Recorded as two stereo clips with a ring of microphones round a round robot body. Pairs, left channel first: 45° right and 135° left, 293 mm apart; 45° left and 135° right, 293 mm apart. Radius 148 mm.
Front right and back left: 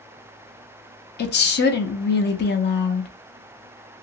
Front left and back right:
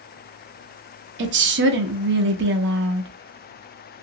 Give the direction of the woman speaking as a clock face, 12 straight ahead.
3 o'clock.